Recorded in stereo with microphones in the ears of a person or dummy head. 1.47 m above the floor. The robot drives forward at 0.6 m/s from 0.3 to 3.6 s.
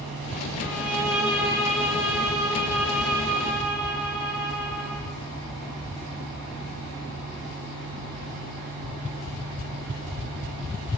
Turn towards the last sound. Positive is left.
turn(degrees=-5)  # may be behind; listen again after turning